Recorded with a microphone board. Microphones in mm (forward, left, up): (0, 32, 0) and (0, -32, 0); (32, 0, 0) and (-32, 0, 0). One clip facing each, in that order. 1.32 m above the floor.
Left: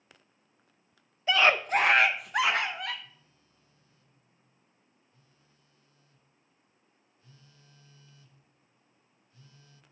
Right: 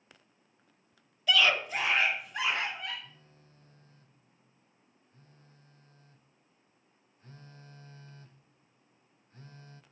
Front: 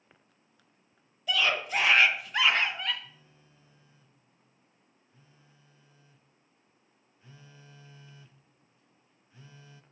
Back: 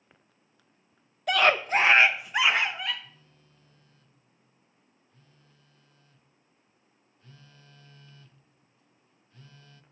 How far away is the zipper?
I don't hear a zipper.